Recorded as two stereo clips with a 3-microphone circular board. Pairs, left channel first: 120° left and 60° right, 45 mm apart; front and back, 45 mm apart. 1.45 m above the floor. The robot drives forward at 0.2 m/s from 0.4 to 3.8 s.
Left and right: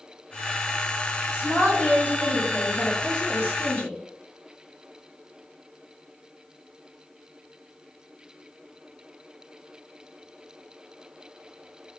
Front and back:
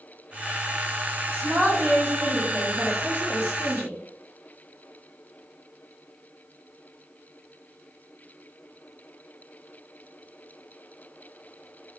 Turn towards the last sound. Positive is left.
turn(degrees=165)